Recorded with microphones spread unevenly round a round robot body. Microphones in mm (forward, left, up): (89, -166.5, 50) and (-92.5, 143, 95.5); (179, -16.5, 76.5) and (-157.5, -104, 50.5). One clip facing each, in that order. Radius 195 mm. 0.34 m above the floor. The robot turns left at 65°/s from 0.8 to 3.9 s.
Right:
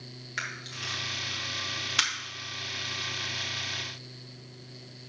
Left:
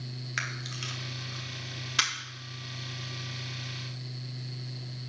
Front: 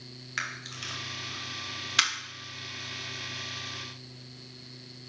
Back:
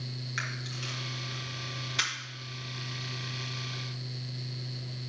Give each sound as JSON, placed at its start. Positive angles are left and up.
{"t": 0.4, "sound": "a camera shutter", "azimuth_deg": 80, "distance_m": 1.4}